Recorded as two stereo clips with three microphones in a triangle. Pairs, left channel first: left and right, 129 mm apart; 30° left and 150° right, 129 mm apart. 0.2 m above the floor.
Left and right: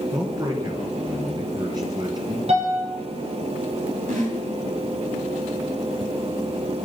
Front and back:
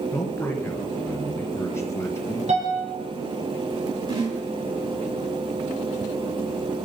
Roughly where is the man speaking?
Ahead right.